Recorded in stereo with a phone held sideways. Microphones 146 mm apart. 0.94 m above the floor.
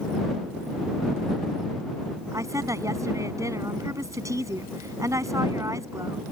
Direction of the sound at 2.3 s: 20° right (ahead or behind).